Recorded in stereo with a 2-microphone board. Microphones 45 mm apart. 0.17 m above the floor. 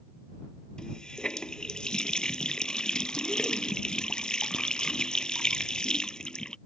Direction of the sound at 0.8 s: 20° left (ahead or behind).